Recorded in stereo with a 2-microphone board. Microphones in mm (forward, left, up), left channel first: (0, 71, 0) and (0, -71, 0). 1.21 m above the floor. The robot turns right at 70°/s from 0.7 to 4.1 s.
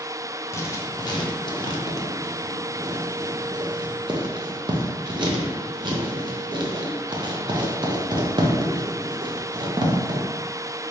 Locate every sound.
0.5 s writing: 20° left (ahead or behind), 0.5 m; by 10.2 s 35° right (ahead or behind), 0.5 m